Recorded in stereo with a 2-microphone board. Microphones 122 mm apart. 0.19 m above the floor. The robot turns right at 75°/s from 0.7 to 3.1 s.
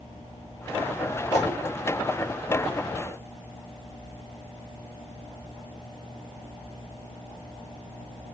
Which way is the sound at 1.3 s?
25° left (ahead or behind).